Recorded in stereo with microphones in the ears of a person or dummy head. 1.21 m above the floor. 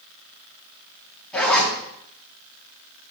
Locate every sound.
1.3 s a zipper: 10° left (ahead or behind), 1.5 m